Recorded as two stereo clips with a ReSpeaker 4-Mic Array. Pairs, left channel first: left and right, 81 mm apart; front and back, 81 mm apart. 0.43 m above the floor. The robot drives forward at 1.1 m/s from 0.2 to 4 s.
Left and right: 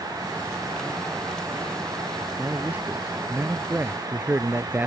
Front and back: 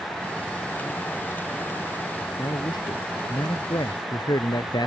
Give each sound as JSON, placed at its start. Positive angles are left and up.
{"t": 2.4, "sound": "a man speaking", "azimuth_deg": -20}